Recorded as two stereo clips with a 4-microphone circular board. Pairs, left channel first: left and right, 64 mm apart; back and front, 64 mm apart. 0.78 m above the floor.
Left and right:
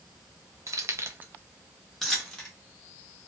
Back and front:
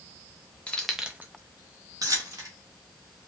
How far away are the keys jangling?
About 0.6 m.